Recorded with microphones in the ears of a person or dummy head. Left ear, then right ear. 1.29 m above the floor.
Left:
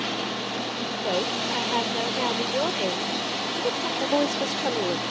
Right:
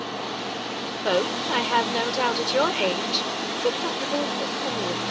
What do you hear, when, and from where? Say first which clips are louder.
1.0 s a woman speaking: right 3 dB; 55° right (ahead or behind)
4.0 s a woman speaking: left 2 dB; 40° left (ahead or behind)